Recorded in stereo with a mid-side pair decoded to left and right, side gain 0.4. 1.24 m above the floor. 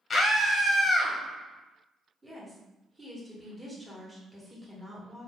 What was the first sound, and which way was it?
A scream, 35° left.